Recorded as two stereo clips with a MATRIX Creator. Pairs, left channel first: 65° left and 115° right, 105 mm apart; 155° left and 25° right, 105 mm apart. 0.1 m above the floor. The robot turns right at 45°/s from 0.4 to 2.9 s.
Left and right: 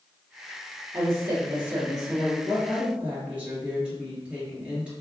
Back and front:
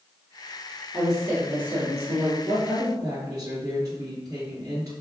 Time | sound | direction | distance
0.9 | a woman speaking | 100° right | 1.7 m
2.4 | a woman speaking | 65° right | 2.0 m